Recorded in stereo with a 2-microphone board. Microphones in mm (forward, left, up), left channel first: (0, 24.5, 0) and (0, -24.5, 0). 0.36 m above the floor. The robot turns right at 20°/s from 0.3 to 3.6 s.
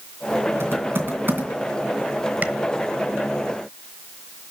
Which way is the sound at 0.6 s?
55° right (ahead or behind).